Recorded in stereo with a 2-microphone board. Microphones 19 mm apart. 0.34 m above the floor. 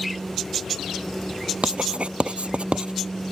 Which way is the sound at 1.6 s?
70° right (ahead or behind).